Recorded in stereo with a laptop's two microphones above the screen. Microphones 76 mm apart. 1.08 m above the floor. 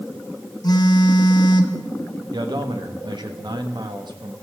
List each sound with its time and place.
0.6 s a phone buzzing: 60° left (ahead or behind), 1.3 m
2.3 s a man speaking: 75° right (ahead or behind), 1.5 m